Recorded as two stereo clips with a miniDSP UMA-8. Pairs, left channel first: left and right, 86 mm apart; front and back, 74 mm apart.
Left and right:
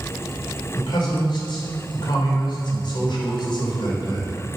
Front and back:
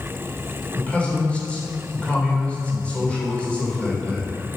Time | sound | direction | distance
0.8 | a man speaking | 75° left | 3 m